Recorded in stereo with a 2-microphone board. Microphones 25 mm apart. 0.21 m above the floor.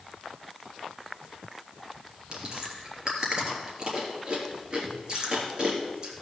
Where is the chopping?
No chopping in this recording.